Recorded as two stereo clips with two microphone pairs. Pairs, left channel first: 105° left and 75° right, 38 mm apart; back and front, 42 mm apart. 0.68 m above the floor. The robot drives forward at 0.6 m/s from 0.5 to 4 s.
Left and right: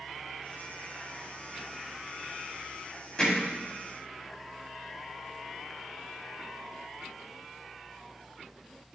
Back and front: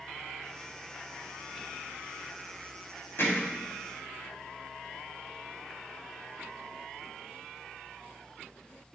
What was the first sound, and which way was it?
Hammering, 170° left.